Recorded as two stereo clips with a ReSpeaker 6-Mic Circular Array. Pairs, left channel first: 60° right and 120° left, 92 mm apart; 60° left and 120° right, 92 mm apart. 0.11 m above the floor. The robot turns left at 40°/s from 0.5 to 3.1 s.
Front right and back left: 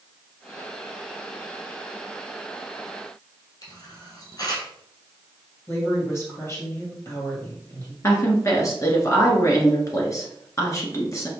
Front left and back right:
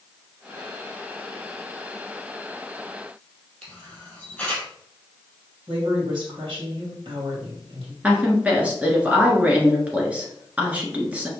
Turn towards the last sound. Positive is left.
turn(degrees=-55)